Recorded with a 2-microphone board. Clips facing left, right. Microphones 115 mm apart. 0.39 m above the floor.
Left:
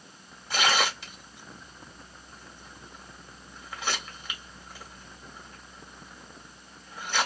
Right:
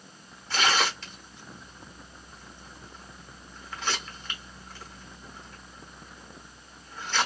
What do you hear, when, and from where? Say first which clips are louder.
0.5 s tearing paper: even; 10° left (ahead or behind), 1.0 m